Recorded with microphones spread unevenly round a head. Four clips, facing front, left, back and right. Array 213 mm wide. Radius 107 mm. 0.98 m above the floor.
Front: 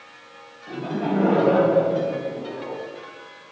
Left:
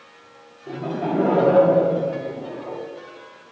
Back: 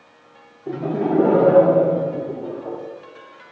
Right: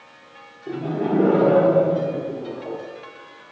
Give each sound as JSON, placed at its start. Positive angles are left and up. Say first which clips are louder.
{"t": 0.7, "sound": "laughter", "louder": "right 2 dB, back 4 dB", "azimuth_deg": -160, "distance_m": 2.5}